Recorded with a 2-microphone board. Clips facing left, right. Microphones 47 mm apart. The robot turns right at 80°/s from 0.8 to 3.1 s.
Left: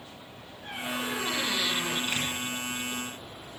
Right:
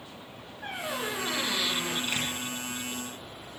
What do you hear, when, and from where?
0.6 s a squeak: 60° right, 6 m; by 2.0 s 35° left, 6 m
2.1 s a door slam: 15° left (ahead or behind), 8.5 m; by 2.3 s 35° left (ahead or behind), 8.5 m